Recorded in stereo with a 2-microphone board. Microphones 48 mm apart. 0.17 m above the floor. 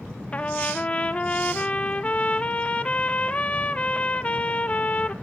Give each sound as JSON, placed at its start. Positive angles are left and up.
{"t": 0.3, "sound": "a trumpet", "side_deg": 25, "distance_m": 0.8}